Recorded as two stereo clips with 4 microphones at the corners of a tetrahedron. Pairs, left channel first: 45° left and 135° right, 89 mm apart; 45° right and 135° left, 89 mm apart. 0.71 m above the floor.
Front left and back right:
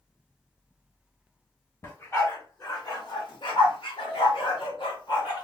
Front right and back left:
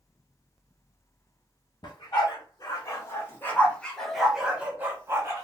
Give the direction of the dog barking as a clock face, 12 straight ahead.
12 o'clock.